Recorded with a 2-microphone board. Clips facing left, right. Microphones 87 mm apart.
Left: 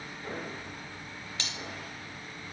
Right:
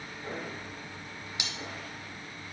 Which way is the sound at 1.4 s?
15° right (ahead or behind).